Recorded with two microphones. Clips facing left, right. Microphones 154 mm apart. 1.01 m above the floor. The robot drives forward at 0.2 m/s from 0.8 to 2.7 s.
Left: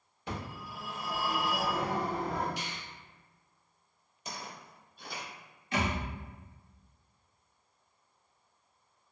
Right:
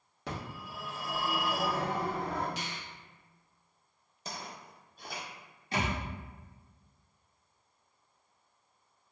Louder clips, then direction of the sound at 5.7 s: Left 1 dB; 30° right (ahead or behind).